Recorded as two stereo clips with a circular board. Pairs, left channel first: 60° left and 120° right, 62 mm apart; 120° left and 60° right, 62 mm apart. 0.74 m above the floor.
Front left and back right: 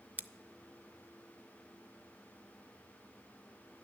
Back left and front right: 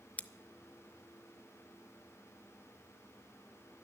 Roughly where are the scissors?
Behind.